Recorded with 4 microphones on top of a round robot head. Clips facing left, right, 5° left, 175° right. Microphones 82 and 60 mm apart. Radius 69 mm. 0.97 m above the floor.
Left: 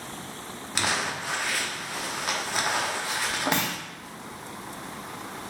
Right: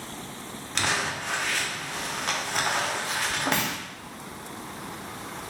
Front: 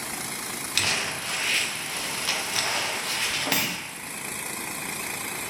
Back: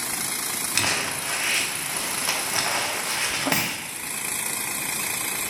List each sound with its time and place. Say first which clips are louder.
0.8 s crumpling: even, back 2 dB; 165° left, 0.6 m
3.5 s a clunk: even, back 2 dB; 140° left, 1.0 m